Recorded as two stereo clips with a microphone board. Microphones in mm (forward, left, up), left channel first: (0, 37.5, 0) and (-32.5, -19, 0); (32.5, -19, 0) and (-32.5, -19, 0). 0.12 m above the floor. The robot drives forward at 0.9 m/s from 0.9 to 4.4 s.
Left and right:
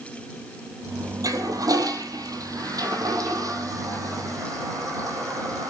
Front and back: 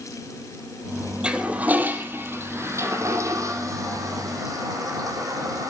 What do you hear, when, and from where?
1.2 s a toilet flushing: 105° right, 2 m; by 5.7 s 150° right, 4 m